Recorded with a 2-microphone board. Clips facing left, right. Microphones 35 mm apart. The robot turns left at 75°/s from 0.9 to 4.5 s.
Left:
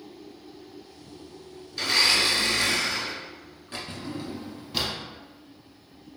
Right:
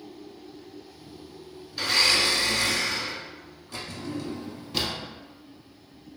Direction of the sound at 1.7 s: 165° right.